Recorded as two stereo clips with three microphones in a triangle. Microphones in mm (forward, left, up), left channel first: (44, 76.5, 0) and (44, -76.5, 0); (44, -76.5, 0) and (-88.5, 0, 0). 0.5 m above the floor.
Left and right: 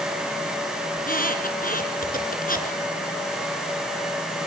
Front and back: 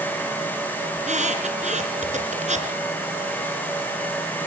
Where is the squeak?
110° left, 3 m.